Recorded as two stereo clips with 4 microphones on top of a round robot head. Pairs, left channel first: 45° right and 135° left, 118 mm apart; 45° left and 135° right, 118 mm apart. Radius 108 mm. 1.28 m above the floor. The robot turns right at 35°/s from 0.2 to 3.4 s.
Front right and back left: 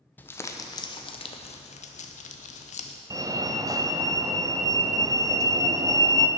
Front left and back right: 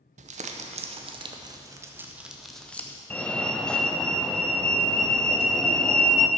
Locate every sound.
0.2 s crumpling: 120° right, 0.8 m; by 3.0 s 25° right, 0.8 m
3.1 s a fire alarm: 115° left, 0.9 m; by 6.3 s 125° left, 0.9 m